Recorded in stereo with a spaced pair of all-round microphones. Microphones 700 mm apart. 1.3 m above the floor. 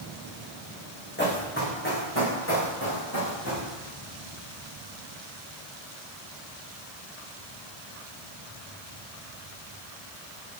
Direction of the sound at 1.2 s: 15° left (ahead or behind).